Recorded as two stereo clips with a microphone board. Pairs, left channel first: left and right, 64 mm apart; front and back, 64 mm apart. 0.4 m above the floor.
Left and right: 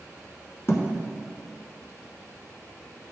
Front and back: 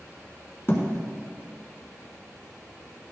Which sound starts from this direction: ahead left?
A thud, at 0.7 s.